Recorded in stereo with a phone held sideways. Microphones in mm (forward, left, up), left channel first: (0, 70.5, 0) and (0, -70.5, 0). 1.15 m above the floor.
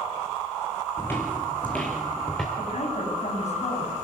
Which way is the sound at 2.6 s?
60° left (ahead or behind).